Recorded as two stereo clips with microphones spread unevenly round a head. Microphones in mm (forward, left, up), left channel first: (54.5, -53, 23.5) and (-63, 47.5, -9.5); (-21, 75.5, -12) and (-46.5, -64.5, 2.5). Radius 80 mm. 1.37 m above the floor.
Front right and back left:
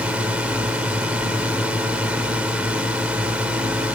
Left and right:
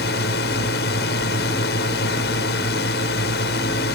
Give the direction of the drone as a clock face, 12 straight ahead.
10 o'clock.